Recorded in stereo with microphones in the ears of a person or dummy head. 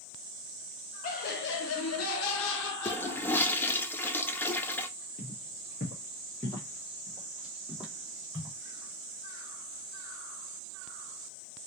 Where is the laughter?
40° left (ahead or behind), 1.0 m; by 3.8 s 45° left (ahead or behind), 1.9 m.